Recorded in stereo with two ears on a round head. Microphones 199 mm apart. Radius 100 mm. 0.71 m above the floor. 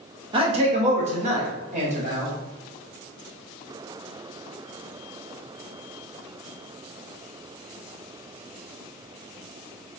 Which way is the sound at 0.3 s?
25° right (ahead or behind).